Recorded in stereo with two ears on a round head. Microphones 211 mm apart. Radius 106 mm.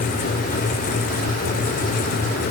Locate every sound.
Only background noise.